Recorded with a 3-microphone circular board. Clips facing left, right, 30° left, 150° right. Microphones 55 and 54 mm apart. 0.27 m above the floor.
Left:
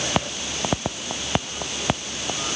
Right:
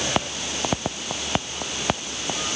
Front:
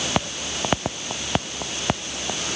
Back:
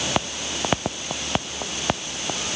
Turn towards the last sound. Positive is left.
No sound to turn to.